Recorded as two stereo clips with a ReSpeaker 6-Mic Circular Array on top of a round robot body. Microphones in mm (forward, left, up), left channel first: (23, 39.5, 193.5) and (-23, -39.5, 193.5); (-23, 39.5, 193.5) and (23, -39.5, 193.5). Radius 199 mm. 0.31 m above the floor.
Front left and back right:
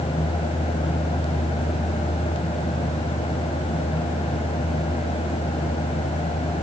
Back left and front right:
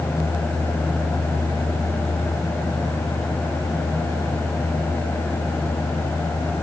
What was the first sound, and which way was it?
Only background noise.